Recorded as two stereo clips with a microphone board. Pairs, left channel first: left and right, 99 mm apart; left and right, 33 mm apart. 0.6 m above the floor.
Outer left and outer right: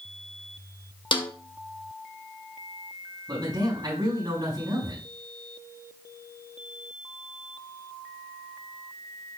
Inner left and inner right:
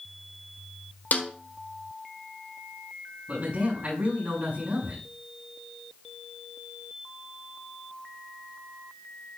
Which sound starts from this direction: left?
A snare drum, at 1.1 s.